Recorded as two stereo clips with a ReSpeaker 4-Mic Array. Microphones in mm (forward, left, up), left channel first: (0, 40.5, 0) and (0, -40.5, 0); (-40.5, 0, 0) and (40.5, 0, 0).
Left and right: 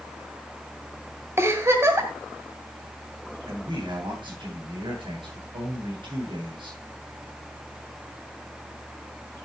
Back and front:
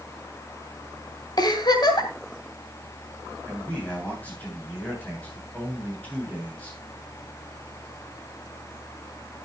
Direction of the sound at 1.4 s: 145° right.